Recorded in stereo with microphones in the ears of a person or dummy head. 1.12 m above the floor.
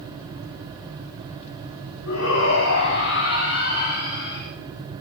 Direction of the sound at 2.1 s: 70° left (ahead or behind).